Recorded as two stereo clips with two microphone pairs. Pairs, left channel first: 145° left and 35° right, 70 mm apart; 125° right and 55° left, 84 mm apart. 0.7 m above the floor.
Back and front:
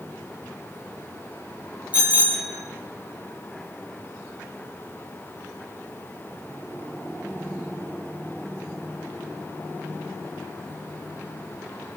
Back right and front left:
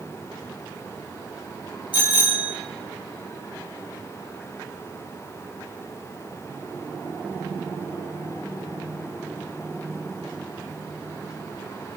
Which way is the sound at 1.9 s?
105° right.